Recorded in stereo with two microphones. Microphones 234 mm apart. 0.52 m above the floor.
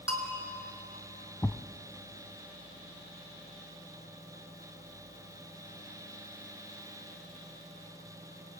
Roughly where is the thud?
Centre.